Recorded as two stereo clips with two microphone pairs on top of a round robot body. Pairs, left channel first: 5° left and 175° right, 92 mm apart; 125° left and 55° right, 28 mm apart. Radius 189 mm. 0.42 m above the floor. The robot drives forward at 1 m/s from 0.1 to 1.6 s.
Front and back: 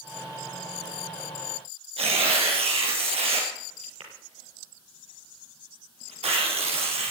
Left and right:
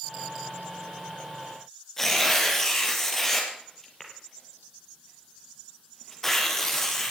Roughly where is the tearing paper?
Behind.